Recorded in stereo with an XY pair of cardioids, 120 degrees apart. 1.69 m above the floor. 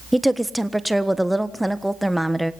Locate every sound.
0.1 s a woman speaking: 5° right, 1.3 m